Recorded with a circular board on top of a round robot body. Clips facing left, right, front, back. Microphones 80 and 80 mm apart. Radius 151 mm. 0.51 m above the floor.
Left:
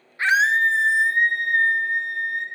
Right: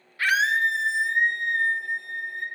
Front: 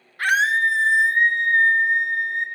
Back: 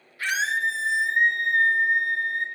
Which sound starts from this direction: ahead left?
A scream, at 0.2 s.